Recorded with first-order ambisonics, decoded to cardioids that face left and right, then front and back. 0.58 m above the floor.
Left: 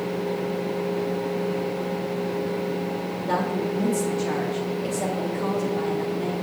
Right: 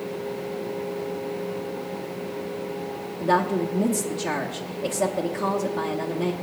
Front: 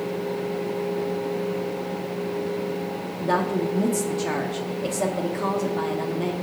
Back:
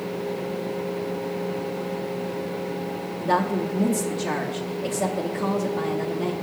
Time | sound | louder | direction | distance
3.2 | a woman speaking | right 5 dB, even | 55° right | 0.6 m